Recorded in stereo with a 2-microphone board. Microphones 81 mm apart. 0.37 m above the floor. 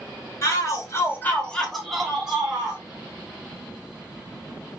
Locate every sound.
0.4 s a shout: 40° left (ahead or behind), 1.3 m; by 2.8 s 10° right (ahead or behind), 2.5 m